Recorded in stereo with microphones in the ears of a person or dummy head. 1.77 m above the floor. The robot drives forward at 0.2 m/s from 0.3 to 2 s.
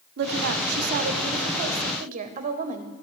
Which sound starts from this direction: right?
A woman speaking, at 0.2 s.